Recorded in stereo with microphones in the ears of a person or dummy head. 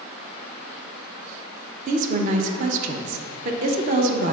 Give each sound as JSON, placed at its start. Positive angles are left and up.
{"t": 1.9, "sound": "a woman speaking", "side_deg": -50, "distance_m": 0.8}